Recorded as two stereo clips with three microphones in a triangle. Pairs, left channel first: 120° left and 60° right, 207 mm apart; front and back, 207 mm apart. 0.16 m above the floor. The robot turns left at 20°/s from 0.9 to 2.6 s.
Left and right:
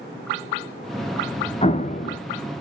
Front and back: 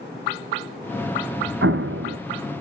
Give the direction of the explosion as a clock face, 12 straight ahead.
6 o'clock.